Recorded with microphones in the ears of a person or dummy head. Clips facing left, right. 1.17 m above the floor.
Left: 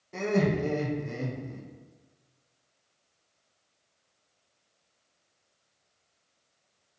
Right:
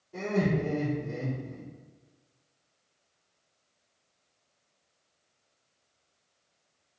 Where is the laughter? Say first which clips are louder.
Left 2 dB; 85° left, 0.7 m.